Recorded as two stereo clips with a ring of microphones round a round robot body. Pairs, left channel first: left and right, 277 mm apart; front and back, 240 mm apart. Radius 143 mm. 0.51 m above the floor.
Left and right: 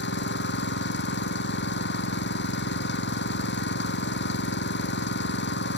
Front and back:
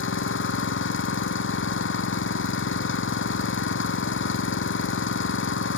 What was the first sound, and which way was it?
An engine running, 35° left.